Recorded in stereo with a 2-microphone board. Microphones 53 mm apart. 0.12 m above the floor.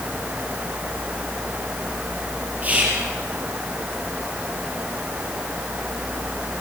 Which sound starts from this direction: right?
Whispering, at 2.6 s.